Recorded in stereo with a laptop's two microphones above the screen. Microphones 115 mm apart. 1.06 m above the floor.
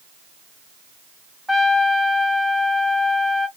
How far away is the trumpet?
About 0.6 m.